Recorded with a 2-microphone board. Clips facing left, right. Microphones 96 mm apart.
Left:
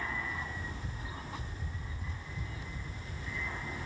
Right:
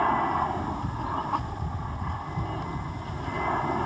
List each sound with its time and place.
0.0 s an aircraft: 60° right (ahead or behind)